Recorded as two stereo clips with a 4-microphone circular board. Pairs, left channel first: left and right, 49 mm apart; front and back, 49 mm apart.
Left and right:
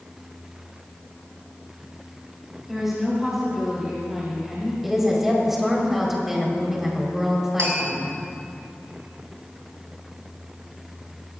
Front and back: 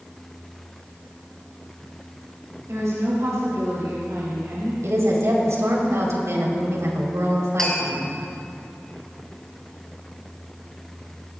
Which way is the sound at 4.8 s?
175° right.